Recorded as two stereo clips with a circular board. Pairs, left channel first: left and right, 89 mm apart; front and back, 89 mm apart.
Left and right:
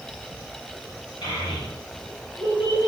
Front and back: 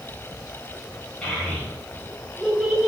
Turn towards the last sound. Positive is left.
turn(degrees=95)